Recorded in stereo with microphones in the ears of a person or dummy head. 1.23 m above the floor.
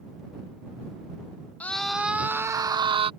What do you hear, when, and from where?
1.6 s a scream: centre (ahead or behind); by 3.1 s 35° right (ahead or behind)